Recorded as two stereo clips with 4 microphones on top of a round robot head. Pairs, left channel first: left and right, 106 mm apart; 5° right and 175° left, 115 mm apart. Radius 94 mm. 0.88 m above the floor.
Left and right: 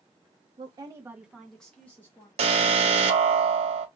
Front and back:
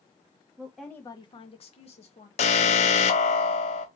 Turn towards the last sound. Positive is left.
turn(degrees=-45)